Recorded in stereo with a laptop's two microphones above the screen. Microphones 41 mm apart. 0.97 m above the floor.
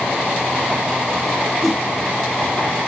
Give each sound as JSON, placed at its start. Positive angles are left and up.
{"t": 1.6, "sound": "a whoosh", "side_deg": 5, "distance_m": 1.6}